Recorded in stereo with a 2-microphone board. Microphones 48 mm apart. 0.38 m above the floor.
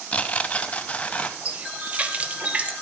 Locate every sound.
0.1 s tearing paper: 25° left (ahead or behind), 0.6 m
1.4 s a running tap: 25° right (ahead or behind), 0.8 m